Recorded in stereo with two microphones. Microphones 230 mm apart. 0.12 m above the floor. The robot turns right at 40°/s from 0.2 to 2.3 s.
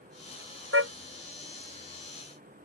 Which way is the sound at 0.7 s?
60° right (ahead or behind).